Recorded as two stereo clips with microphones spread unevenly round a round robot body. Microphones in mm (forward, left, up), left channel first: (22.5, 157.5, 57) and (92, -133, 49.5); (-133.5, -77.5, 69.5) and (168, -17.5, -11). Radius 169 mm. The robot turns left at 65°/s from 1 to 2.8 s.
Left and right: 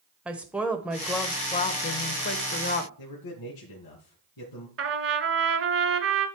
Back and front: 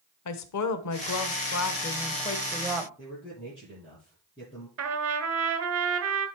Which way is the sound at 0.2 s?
160° right.